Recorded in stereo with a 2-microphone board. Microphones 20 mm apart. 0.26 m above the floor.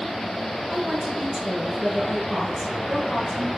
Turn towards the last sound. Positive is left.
turn(degrees=-10)  # may be behind; listen again after turning